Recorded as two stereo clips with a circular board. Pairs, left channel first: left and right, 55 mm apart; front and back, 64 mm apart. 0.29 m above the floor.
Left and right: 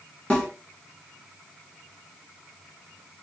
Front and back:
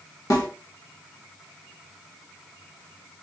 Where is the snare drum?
20° left, 1.2 m.